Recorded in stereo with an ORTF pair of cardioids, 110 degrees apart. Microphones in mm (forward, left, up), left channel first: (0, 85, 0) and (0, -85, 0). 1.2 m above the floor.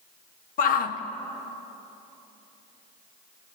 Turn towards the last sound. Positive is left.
turn(degrees=60)